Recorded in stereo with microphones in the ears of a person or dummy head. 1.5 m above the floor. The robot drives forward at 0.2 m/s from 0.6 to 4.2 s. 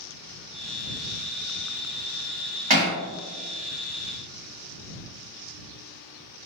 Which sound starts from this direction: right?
Hammering, at 2.7 s.